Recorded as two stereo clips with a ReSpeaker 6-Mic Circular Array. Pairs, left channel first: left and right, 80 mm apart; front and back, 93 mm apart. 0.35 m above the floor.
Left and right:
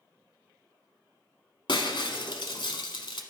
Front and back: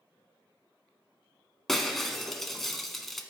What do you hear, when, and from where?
1.7 s breaking glass: 85° left, 1.1 m